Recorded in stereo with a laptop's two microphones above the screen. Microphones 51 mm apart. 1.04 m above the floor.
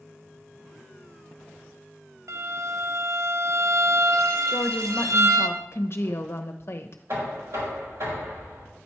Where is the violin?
75° right (ahead or behind), 0.8 m.